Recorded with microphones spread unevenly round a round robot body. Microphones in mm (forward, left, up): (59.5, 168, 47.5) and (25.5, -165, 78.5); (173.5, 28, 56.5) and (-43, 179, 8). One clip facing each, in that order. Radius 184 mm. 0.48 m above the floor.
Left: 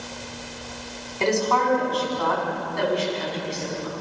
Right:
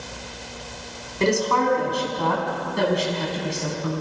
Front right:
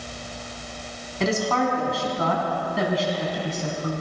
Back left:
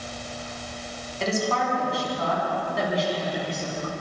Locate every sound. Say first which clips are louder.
1.2 s a woman speaking: right 2 dB, front right 3 dB; 25° right, 5.5 m; by 4.0 s 65° right, 6 m